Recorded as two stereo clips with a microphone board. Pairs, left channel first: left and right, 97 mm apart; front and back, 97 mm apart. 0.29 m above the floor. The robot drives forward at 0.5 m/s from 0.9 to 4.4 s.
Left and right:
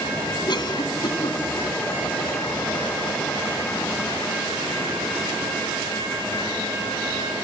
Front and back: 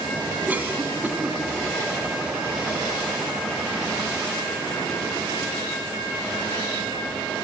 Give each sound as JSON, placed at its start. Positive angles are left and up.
{"t": 0.5, "sound": "a cough", "azimuth_deg": 110, "distance_m": 2.5}